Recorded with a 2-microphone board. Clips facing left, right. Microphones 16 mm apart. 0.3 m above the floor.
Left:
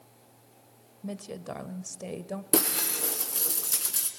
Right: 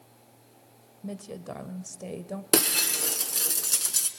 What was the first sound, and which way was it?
A woman speaking, 15° left (ahead or behind).